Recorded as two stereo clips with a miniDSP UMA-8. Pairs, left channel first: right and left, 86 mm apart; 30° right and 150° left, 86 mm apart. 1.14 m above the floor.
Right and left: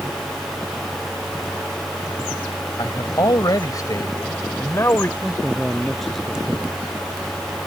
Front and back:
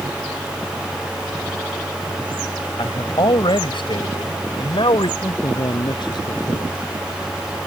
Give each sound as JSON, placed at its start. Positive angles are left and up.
{"t": 2.8, "sound": "a man speaking", "azimuth_deg": -55}
{"t": 5.2, "sound": "a man speaking", "azimuth_deg": 0}